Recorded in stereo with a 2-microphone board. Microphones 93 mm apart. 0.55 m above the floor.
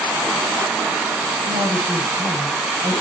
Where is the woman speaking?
75° right (ahead or behind), 7.5 m.